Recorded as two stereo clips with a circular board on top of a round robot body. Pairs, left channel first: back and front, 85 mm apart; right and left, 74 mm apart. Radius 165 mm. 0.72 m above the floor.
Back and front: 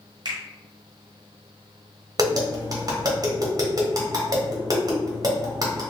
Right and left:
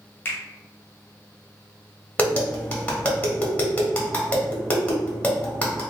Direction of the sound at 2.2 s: 25° right.